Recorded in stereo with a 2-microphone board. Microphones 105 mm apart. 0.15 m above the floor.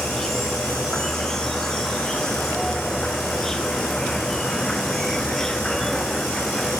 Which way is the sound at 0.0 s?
5° left (ahead or behind).